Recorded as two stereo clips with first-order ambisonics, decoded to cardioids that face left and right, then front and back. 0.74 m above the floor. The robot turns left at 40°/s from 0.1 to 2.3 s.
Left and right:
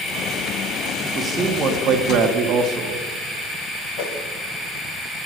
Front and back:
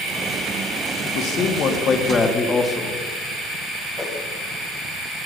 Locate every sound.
1.1 s a man speaking: 20° right, 1.2 m; by 3.0 s 70° right, 1.2 m
4.0 s a whoosh: 80° left, 1.3 m